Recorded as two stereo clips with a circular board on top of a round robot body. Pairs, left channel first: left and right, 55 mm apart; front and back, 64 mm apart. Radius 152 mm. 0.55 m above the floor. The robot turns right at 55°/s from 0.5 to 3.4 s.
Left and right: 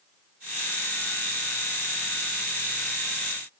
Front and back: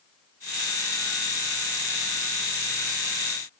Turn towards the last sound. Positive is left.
No sound to turn to.